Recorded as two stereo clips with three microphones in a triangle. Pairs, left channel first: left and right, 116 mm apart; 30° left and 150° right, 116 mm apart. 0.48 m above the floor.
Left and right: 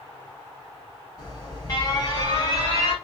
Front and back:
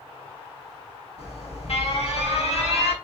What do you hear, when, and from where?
1.2 s an alarm: 40° left, 2.5 m